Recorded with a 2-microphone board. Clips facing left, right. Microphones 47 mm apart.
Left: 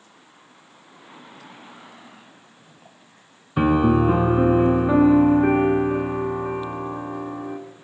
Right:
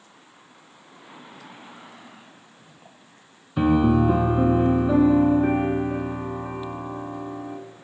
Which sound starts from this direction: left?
A piano, at 3.6 s.